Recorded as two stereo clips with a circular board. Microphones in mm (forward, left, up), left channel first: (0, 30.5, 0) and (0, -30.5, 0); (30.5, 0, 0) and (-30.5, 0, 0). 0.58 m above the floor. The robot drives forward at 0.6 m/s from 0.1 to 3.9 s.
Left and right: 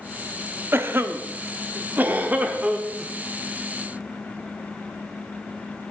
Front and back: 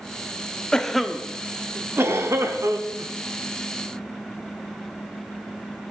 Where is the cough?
70° right, 0.8 m; by 3.1 s 160° right, 1.5 m.